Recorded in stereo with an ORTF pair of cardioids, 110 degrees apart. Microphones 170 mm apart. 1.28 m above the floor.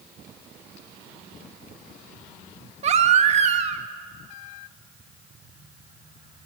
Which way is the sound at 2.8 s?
40° right.